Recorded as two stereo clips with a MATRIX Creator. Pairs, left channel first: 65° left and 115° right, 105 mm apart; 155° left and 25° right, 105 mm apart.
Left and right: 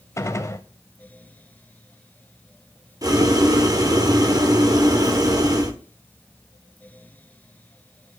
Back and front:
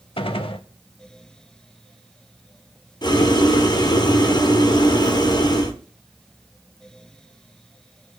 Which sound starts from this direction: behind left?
A gunshot, at 0.2 s.